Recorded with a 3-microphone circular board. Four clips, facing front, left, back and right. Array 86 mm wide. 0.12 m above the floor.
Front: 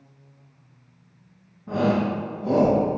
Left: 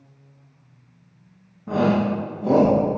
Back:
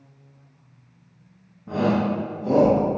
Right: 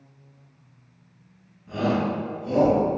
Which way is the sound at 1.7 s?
90° left.